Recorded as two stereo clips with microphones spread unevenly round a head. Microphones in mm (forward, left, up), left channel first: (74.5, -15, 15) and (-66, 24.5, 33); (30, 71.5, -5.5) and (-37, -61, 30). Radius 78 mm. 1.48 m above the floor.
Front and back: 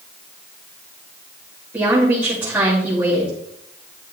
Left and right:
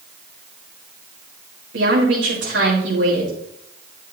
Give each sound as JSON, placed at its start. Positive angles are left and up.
{"t": 1.7, "sound": "a woman speaking", "azimuth_deg": -120, "distance_m": 4.0}